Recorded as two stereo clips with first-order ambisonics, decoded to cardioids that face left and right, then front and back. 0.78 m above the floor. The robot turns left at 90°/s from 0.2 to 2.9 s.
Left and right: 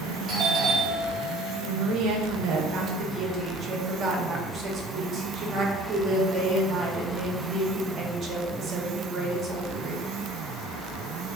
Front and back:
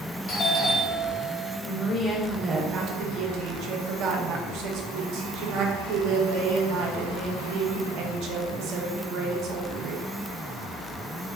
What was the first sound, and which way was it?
A doorbell, 15° right.